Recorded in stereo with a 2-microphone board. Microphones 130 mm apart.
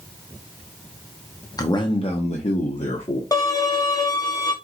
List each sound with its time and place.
1.6 s a man speaking: 30° left (ahead or behind), 0.8 m; by 3.2 s 60° left (ahead or behind), 1.2 m
3.3 s a violin: 30° left (ahead or behind), 0.8 m